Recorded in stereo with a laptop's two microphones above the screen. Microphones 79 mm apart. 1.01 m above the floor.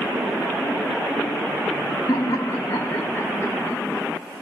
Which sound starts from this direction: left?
Laughter, at 2.1 s.